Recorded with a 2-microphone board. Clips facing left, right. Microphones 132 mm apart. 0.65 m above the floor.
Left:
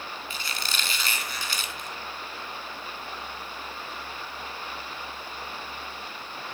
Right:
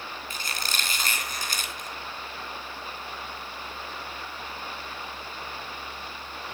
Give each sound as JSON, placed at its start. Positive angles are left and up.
{"t": 0.3, "sound": "a squeak", "side_deg": -45, "distance_m": 3.0}